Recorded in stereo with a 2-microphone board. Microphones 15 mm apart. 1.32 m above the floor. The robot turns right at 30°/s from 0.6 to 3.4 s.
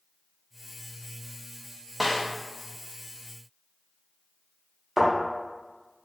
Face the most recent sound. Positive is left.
turn(degrees=-20)  # may be behind; listen again after turning